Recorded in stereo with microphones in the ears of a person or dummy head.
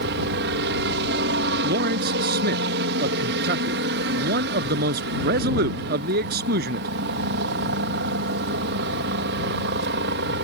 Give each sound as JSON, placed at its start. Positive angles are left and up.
{"t": 0.0, "sound": "a helicopter", "side_deg": -60}
{"t": 1.6, "sound": "a man speaking", "side_deg": -55}